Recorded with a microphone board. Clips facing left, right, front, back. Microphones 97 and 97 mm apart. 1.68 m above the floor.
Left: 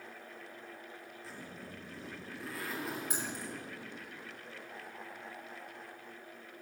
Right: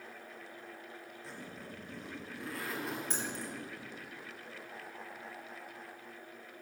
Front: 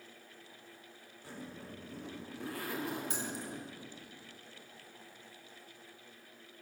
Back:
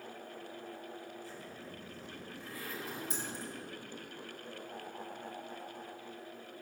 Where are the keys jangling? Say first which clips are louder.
Even, front 1 dB; 10° left, 2.5 m.